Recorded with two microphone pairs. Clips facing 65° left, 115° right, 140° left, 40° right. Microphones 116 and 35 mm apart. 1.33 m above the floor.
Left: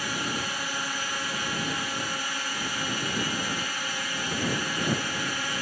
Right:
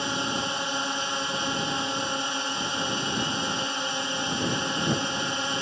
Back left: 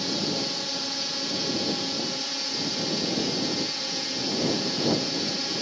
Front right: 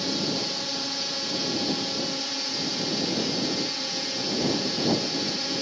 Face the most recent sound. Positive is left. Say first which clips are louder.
# right 3 dB, even
turn(degrees=-125)